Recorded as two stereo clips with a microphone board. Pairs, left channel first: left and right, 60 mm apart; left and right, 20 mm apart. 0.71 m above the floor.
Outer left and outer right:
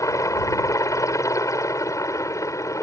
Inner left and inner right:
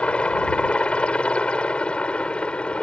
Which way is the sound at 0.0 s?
60° left (ahead or behind).